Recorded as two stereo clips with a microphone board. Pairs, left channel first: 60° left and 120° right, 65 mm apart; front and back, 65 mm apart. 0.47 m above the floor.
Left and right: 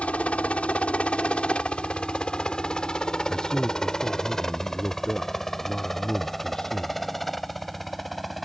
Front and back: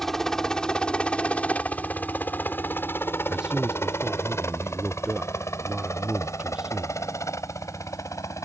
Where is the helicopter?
75° left; by 8.5 s 30° right.